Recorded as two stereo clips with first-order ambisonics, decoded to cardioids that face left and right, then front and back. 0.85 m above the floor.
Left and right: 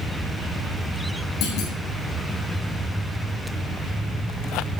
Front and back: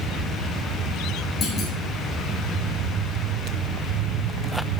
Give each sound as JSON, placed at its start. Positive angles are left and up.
{"t": 1.4, "sound": "a clunk", "azimuth_deg": 60, "distance_m": 2.5}